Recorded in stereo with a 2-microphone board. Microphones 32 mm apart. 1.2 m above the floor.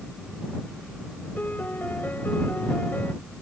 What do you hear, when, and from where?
1.4 s a piano: 75° left (ahead or behind)